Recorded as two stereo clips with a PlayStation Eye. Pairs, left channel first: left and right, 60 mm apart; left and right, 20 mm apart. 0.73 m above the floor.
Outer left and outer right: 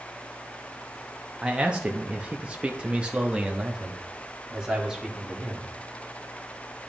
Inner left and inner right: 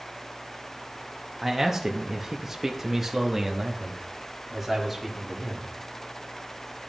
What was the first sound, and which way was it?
A man speaking, 15° right (ahead or behind).